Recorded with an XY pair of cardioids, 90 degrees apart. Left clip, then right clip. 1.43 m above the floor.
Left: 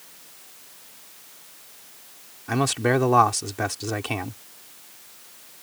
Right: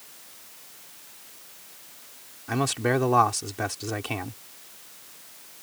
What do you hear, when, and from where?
2.5 s a man speaking: 20° left